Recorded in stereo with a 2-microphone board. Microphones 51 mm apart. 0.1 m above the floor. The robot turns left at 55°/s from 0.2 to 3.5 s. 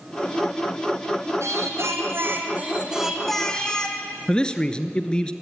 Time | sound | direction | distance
1.4 | singing | 80° right | 2 m
4.3 | a man speaking | 20° left (ahead or behind) | 1.2 m